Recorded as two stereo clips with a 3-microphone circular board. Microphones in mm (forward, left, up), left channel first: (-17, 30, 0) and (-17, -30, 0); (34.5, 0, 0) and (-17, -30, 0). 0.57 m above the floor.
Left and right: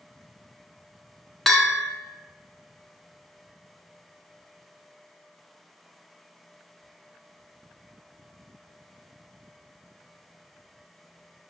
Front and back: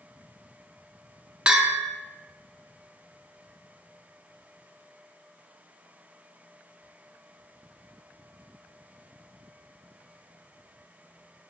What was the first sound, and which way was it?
A bell, 175° left.